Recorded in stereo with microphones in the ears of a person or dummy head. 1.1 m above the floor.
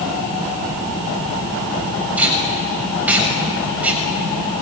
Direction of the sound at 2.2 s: 5° right (ahead or behind).